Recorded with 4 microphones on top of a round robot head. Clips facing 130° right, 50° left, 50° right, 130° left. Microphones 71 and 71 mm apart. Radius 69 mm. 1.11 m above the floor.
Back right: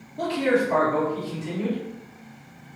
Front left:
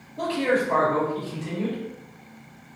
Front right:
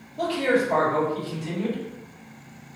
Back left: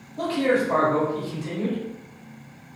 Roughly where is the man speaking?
Left.